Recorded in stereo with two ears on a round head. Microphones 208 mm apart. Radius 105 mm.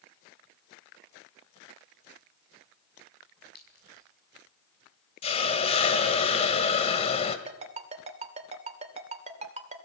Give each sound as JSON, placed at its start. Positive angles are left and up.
{"t": 3.5, "sound": "a clink", "side_deg": 40, "distance_m": 6.5}
{"t": 5.2, "sound": "a hiss", "side_deg": 25, "distance_m": 1.8}
{"t": 7.5, "sound": "a ringtone", "side_deg": -30, "distance_m": 2.5}